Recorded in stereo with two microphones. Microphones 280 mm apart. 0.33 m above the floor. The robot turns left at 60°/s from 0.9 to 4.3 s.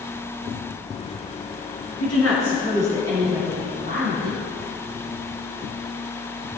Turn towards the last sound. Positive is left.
turn(degrees=-60)